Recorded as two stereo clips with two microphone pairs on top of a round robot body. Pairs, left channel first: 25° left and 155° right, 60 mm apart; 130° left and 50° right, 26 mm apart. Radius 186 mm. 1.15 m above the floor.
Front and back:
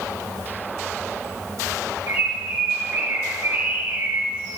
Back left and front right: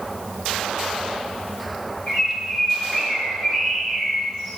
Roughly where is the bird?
Behind.